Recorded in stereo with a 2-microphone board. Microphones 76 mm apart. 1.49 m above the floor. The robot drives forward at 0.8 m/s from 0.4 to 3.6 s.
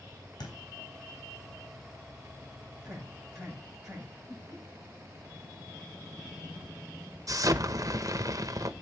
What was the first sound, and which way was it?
A thud, 70° left (ahead or behind).